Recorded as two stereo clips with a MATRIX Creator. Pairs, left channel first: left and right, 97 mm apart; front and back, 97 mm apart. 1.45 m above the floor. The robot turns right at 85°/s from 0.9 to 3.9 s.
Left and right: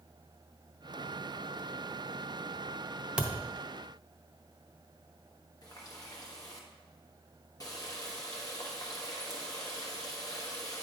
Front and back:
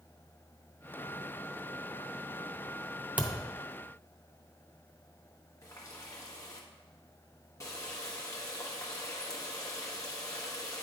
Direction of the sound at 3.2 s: 145° right.